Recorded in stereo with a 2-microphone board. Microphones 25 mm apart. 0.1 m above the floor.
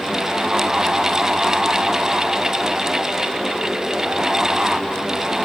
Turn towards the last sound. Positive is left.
No sound to turn to.